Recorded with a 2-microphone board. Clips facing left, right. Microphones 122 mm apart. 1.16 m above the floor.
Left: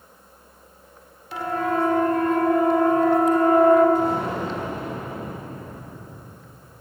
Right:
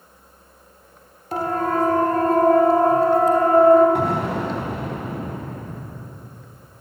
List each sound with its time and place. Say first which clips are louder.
1.3 s a siren: right 2 dB; 45° right (ahead or behind), 3 m; by 3.9 s 30° right (ahead or behind), 5 m
4.0 s an explosion: right 1 dB; 80° right, 4.5 m